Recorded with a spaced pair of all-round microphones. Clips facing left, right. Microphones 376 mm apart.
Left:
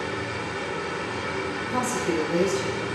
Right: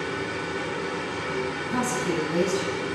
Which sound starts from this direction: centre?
A machine running, at 0.0 s.